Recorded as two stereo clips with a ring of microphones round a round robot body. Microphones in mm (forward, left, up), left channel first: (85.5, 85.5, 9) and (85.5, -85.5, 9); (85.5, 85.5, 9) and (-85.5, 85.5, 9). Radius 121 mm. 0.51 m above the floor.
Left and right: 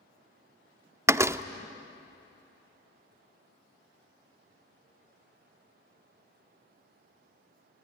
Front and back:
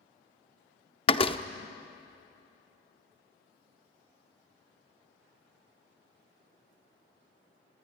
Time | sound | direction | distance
1.1 | a door slam | 30° right | 0.6 m